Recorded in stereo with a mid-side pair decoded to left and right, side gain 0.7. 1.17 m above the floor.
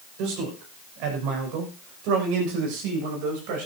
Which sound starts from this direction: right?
A man speaking, at 0.2 s.